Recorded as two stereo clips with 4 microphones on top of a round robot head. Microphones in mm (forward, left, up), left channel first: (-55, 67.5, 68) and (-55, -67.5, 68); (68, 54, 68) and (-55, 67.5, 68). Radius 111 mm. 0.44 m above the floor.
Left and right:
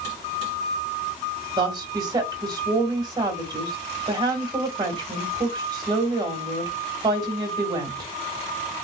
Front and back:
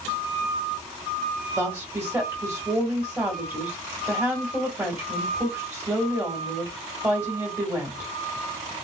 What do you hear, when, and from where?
1.6 s a woman speaking: 125° right, 1.5 m